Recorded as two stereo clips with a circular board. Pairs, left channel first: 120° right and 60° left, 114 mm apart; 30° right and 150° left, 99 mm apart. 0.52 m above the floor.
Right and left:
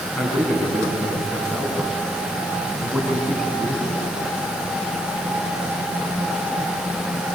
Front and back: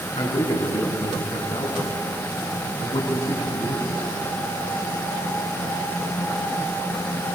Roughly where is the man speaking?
Ahead right.